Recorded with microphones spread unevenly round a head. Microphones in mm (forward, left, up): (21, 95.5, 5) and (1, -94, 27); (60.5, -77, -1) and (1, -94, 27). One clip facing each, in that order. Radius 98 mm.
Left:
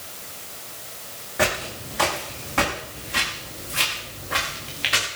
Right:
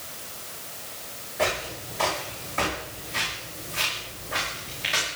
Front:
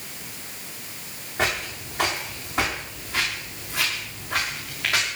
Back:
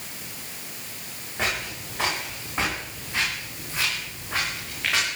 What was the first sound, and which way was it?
Footsteps, 105° left.